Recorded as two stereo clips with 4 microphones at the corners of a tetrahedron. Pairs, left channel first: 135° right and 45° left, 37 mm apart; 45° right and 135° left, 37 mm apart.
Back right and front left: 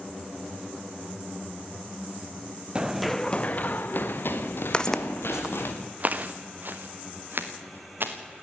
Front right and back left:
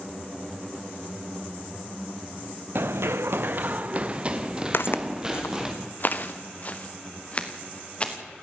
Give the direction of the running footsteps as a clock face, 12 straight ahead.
8 o'clock.